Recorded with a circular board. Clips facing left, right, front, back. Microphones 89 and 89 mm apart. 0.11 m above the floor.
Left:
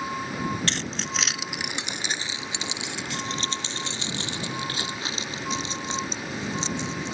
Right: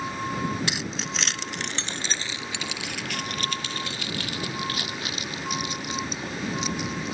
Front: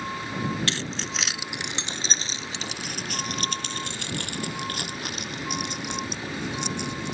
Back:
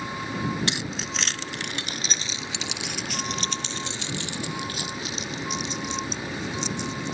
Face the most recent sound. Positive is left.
turn(degrees=30)